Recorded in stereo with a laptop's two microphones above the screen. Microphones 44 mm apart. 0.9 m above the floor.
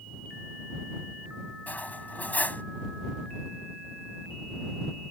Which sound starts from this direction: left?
Cutlery clinking, at 1.7 s.